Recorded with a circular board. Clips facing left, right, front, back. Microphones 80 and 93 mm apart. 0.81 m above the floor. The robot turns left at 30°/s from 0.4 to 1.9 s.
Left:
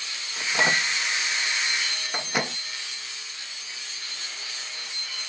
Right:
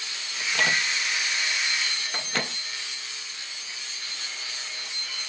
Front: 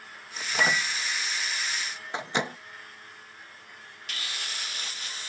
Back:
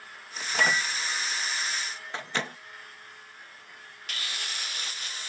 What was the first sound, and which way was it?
A microwave, 85° left.